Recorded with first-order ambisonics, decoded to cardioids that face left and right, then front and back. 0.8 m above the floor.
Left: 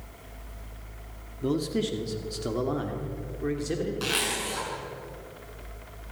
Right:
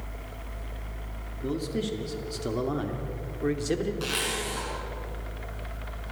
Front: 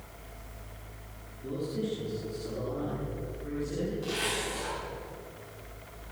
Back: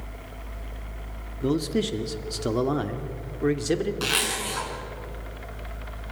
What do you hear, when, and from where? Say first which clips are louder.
1.4 s a man speaking: left 3 dB, back 9 dB; 160° left, 2 m; by 3.9 s 165° right, 2.5 m
4.0 s a zipper: left 1 dB, back 6 dB; 170° left, 6.5 m